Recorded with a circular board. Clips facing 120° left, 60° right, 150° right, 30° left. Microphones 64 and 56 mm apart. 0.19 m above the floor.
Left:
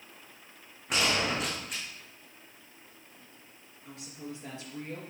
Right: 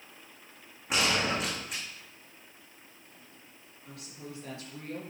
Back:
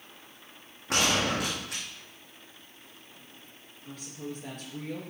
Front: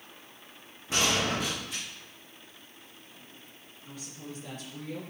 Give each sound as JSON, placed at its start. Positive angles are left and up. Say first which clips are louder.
{"t": 0.9, "sound": "a gunshot", "louder": "even, back 1 dB", "azimuth_deg": -150, "distance_m": 3.0}
{"t": 3.9, "sound": "a woman speaking", "louder": "left 3 dB, back 4 dB", "azimuth_deg": -175, "distance_m": 3.5}